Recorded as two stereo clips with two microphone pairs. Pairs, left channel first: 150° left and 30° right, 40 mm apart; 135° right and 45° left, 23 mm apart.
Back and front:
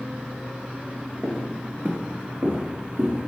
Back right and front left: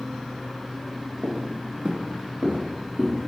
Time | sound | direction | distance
1.2 | footsteps | 25° left | 2.5 m